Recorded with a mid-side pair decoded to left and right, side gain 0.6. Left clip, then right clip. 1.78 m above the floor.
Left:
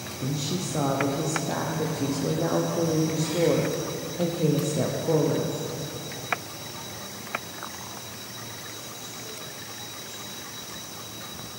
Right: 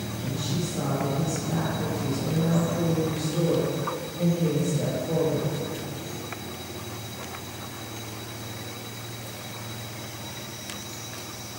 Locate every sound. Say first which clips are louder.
0.2 s a woman speaking: left 2 dB; 70° left, 0.9 m